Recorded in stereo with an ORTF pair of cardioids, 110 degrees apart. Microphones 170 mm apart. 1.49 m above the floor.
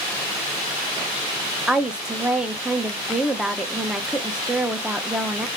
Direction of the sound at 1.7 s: 5° right.